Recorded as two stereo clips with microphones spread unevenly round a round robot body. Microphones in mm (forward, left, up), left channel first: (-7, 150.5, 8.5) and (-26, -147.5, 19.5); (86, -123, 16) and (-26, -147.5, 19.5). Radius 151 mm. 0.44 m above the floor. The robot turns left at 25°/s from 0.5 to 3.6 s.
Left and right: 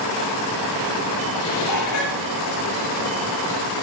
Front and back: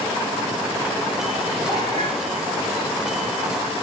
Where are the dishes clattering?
125° left, 8.5 m; by 2.2 s 100° left, 8.5 m.